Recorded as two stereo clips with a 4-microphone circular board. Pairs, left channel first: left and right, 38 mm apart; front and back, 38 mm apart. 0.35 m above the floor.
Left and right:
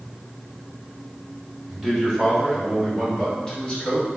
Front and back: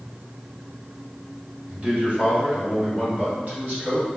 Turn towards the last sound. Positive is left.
turn(degrees=150)